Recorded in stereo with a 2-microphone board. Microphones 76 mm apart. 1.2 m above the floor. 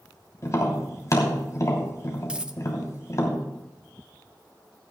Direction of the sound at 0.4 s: 45° left (ahead or behind).